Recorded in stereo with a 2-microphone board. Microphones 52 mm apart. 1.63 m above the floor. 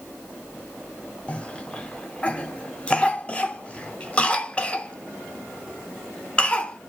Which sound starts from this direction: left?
A cough, at 1.3 s.